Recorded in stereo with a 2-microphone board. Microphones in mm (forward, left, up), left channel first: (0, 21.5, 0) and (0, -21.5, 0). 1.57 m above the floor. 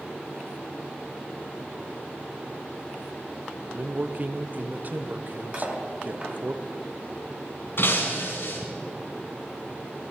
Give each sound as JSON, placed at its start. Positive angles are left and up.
{"t": 3.8, "sound": "a man speaking", "side_deg": -40, "distance_m": 0.7}
{"t": 5.5, "sound": "cutlery clinking", "side_deg": -25, "distance_m": 1.8}
{"t": 7.8, "sound": "breaking glass", "side_deg": 55, "distance_m": 3.5}